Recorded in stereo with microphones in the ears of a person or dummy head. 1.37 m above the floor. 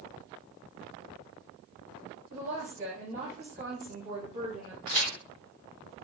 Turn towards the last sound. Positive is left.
turn(degrees=5)  # may be behind; listen again after turning